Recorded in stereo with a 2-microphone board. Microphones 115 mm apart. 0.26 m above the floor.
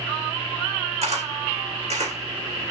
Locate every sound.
1.0 s a camera shutter: 70° right (ahead or behind), 3 m